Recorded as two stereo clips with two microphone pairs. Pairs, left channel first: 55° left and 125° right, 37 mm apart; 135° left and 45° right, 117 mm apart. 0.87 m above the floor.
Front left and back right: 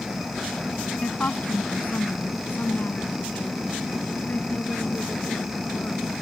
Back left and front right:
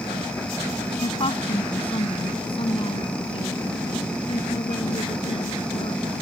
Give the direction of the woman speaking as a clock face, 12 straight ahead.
9 o'clock.